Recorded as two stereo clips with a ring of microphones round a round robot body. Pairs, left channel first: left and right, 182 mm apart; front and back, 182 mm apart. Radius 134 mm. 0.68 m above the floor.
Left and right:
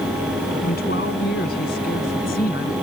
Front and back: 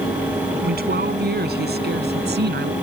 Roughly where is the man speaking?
Behind left.